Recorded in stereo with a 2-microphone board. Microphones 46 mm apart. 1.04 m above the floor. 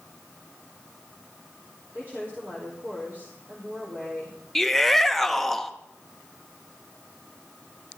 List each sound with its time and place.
1.9 s a woman speaking: 40° right (ahead or behind), 3.5 m
4.5 s a shout: 5° left (ahead or behind), 0.8 m